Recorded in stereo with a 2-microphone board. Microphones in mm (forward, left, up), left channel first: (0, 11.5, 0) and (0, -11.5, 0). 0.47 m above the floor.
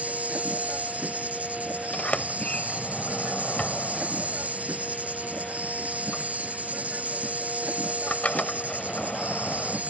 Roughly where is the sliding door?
Left.